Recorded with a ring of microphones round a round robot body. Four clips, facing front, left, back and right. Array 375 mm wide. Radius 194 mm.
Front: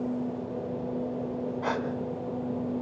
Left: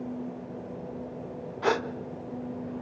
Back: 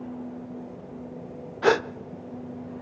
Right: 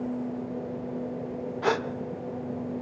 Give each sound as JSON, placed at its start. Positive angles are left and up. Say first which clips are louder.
{"t": 1.6, "sound": "a gasp", "louder": "even, back 11 dB", "azimuth_deg": 180, "distance_m": 0.8}